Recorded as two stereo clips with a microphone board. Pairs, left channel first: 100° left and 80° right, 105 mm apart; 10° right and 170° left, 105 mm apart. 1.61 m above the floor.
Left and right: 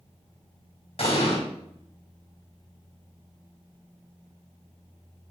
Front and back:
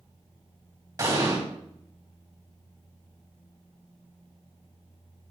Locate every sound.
1.0 s an explosion: 115° left, 3 m